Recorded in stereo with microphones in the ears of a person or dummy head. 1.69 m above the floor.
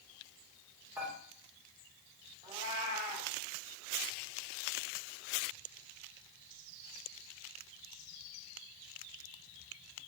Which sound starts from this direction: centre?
Dishes clattering, at 1.0 s.